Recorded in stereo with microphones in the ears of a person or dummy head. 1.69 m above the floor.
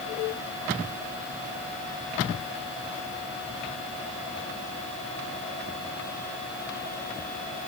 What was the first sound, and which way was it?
Only background noise.